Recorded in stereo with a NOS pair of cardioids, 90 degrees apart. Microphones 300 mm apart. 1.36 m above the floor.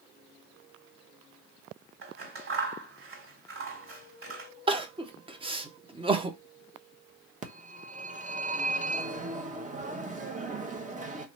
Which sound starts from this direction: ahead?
Crying, at 4.7 s.